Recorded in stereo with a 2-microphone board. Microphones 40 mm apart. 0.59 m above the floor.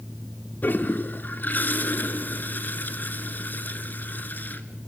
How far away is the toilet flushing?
About 1.5 m.